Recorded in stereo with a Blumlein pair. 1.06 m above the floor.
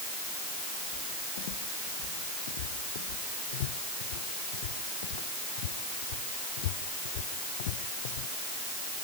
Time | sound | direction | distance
0.9 | footsteps | 55° left | ?